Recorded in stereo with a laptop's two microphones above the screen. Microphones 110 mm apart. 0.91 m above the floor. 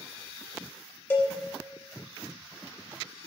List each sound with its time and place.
1.1 s a cowbell: 20° left (ahead or behind), 1.1 m